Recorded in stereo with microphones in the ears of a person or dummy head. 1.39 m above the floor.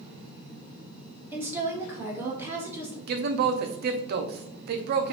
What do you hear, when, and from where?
1.3 s a woman speaking: 10° right (ahead or behind), 1.4 m
3.1 s a man speaking: 50° right (ahead or behind), 0.5 m